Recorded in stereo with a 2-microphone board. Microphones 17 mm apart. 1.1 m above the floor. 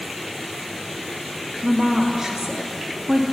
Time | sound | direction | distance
1.6 | a woman speaking | 35° right (ahead or behind) | 2.5 m